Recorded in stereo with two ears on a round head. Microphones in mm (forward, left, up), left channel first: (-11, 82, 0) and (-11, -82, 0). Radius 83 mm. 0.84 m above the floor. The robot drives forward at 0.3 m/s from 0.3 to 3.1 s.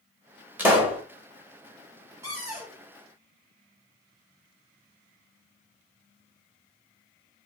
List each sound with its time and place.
0.6 s a pop: 10° right (ahead or behind), 0.7 m
2.2 s a cupboard door: 20° right (ahead or behind), 1.4 m